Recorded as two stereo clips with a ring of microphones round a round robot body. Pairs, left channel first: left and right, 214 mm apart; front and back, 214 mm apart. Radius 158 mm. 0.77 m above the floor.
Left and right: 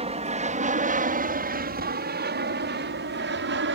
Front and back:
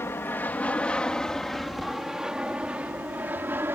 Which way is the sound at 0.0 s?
70° right.